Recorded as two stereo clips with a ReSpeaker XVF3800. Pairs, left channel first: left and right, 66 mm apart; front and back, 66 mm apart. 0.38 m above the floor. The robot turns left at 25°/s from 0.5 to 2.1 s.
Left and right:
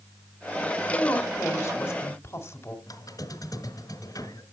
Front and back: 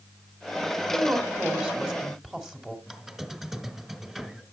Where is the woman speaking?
135° left, 1.6 m; by 2.8 s 105° left, 1.6 m.